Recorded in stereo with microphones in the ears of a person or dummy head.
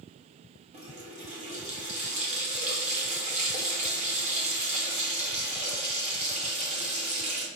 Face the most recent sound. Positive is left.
turn(degrees=-35)  # may be behind; listen again after turning